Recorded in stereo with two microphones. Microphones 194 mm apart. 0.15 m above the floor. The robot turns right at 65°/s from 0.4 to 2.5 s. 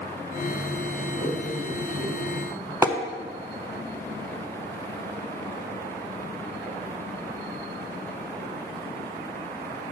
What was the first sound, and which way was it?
A man speaking, 65° left (ahead or behind).